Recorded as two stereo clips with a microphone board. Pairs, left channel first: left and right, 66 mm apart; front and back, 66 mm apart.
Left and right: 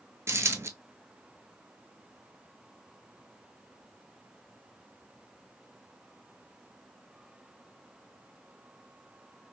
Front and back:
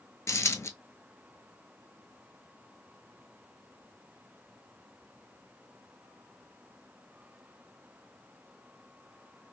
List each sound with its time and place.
0.3 s a dropped coin: 45° right, 0.6 m